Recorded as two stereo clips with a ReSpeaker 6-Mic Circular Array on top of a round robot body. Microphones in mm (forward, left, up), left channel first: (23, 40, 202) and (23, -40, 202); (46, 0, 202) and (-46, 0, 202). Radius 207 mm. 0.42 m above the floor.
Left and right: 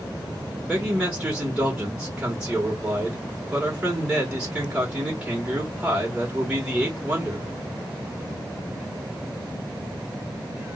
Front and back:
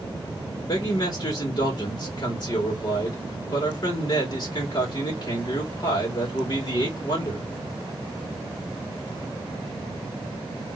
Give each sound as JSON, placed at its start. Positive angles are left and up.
{"t": 0.6, "sound": "a man speaking", "azimuth_deg": -20, "distance_m": 1.9}